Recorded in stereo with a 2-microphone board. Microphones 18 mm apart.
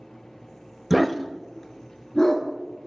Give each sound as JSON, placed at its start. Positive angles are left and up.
{"t": 0.9, "sound": "a dog barking", "side_deg": -15, "distance_m": 0.5}